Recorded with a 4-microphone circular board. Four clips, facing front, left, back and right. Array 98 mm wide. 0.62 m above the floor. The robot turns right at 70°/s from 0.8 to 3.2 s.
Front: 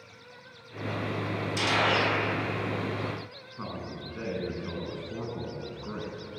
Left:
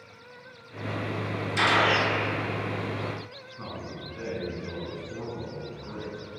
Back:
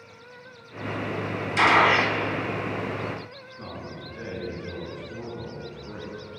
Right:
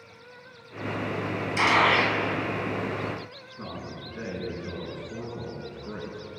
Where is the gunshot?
Straight behind, 1.2 m; by 2.2 s 135° right, 1.2 m.